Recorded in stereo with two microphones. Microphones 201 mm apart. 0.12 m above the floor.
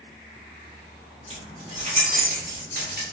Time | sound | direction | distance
1.3 | keys jangling | 25° right (ahead or behind) | 2.0 m